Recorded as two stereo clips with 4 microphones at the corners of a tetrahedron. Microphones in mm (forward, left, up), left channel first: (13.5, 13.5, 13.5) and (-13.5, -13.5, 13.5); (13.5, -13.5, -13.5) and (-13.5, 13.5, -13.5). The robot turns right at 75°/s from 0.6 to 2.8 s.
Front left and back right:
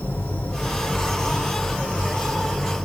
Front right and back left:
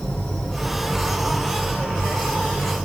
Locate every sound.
0.0 s an insect: 20° left, 3 m; by 2.9 s 175° right, 3 m